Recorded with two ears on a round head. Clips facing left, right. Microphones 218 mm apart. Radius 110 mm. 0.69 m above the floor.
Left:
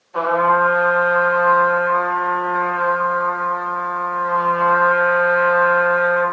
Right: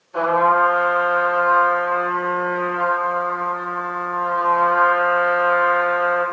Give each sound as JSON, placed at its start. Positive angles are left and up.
{"t": 0.1, "sound": "a trumpet", "side_deg": -40, "distance_m": 1.8}